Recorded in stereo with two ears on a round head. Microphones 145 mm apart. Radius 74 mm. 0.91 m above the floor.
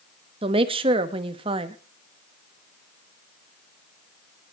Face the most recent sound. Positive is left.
turn(degrees=-35)  # may be behind; listen again after turning